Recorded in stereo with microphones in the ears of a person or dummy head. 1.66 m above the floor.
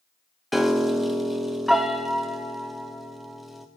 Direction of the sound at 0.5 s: Centre (ahead or behind).